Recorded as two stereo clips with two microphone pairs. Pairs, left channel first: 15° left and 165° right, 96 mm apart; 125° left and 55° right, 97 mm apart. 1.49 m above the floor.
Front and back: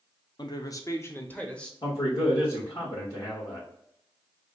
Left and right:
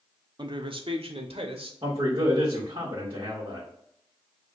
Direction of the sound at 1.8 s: 25° right.